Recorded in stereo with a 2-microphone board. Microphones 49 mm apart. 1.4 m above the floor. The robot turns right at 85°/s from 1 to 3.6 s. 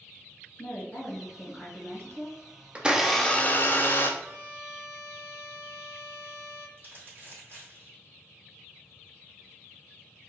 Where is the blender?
30° right, 0.6 m; by 4.1 s 40° left, 0.6 m.